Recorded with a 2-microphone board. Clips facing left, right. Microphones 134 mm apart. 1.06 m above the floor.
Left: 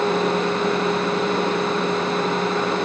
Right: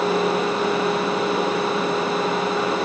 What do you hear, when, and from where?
Only background noise.